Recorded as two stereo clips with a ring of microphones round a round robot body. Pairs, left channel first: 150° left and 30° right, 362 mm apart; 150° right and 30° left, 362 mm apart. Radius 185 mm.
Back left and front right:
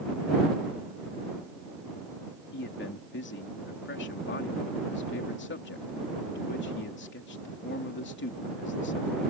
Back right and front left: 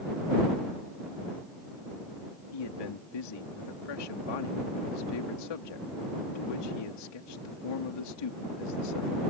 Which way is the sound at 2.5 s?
150° right.